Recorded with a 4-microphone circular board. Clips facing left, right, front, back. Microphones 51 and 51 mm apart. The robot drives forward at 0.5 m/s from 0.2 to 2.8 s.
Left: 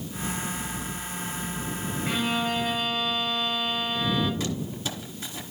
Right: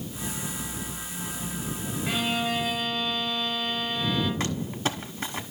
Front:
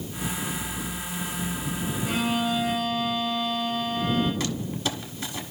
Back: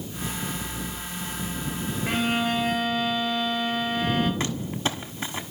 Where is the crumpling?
130° right, 1.2 m.